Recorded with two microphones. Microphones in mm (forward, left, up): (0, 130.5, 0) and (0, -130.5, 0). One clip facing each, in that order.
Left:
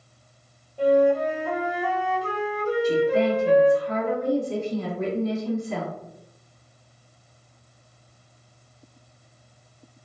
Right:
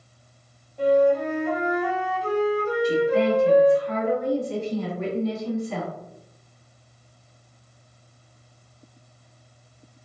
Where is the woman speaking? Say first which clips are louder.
Even; centre (ahead or behind), 1.6 m.